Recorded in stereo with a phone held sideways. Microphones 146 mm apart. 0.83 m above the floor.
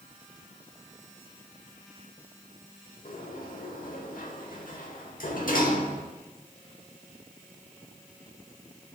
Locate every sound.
3.0 s a sliding door: 70° left (ahead or behind), 1.1 m